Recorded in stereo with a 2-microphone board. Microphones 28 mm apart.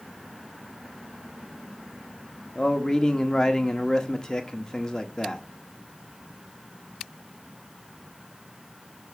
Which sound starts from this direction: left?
A man speaking, at 2.5 s.